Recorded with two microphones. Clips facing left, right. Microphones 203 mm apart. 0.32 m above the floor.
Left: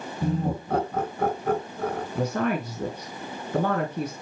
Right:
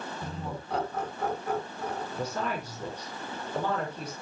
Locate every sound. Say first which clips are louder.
0.2 s laughter: left 10 dB; 50° left (ahead or behind), 2.5 m; by 2.0 s 65° left (ahead or behind), 3.5 m
2.1 s a woman speaking: left 9 dB; 60° left (ahead or behind), 3 m